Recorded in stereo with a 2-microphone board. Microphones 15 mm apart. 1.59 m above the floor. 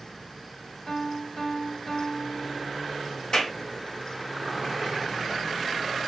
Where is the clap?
60° left (ahead or behind), 1.5 m.